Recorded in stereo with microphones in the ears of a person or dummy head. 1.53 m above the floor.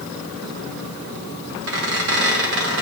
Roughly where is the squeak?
Right.